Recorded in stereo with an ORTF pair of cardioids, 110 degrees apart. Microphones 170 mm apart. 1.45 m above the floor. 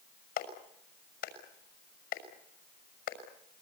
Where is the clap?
65° left, 6 m.